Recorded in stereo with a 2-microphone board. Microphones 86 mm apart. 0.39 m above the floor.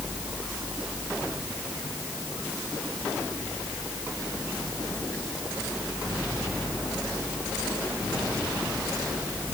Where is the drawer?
No drawer in this recording.